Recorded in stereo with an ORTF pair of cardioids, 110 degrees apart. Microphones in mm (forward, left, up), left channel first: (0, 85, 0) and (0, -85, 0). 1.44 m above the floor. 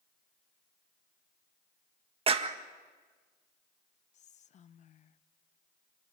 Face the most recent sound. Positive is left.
turn(degrees=45)